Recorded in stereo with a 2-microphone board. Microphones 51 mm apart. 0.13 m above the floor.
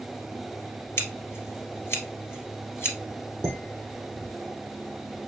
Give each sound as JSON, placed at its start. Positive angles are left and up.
{"t": 1.0, "sound": "scissors", "side_deg": 50, "distance_m": 2.0}
{"t": 3.4, "sound": "dishes clattering", "side_deg": -15, "distance_m": 3.0}